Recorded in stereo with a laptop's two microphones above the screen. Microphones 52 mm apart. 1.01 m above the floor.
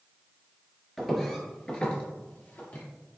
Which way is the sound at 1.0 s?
Centre (ahead or behind).